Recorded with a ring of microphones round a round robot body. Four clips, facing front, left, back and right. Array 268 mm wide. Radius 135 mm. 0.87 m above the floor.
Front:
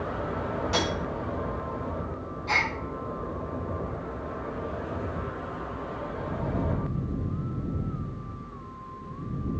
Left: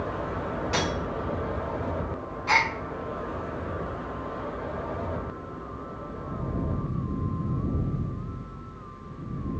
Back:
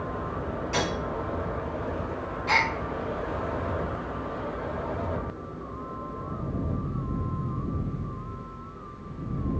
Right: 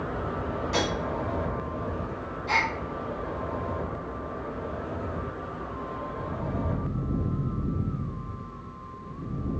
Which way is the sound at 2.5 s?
115° left.